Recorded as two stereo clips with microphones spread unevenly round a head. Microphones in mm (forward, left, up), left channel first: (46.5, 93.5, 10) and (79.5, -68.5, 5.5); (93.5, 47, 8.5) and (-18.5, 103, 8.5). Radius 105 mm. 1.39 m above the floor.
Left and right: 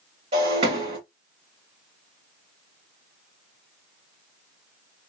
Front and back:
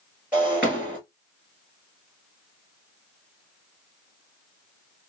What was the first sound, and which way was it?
Breaking glass, 130° right.